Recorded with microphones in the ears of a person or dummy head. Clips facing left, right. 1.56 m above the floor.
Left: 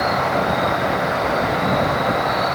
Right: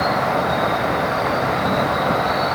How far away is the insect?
About 3 m.